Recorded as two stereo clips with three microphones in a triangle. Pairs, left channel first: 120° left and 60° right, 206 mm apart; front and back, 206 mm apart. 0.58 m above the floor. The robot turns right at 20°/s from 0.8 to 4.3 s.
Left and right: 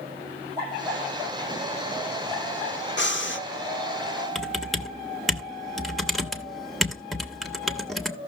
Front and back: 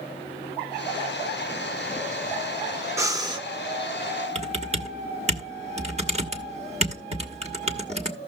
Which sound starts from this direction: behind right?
Typing on a keyboard, at 4.3 s.